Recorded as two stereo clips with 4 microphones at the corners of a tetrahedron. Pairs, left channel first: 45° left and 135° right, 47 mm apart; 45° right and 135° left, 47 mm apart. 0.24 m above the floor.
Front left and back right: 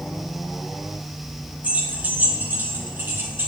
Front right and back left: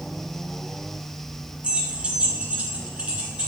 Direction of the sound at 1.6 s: 170° right.